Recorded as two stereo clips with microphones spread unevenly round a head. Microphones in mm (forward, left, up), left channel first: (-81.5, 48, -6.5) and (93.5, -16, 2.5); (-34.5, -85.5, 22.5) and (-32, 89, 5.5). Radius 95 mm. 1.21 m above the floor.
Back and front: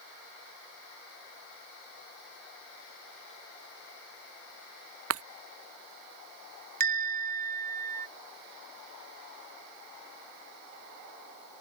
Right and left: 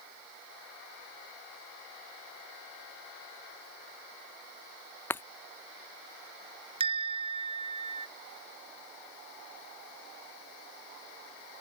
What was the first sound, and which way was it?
Breaking glass, 10° right.